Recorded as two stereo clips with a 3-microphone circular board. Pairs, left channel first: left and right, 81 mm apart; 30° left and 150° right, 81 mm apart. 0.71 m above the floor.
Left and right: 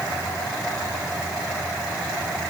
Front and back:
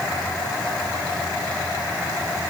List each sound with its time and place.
Only background noise.